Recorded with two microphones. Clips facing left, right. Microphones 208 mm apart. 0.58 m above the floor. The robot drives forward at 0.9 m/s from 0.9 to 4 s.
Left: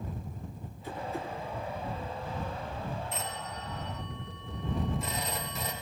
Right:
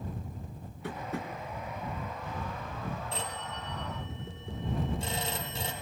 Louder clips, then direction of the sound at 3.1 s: Even; 30° right (ahead or behind).